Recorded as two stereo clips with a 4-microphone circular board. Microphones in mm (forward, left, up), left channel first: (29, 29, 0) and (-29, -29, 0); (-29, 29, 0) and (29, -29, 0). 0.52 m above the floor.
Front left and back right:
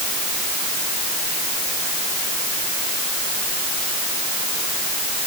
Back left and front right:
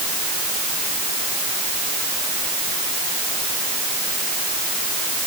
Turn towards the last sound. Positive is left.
No sound to turn to.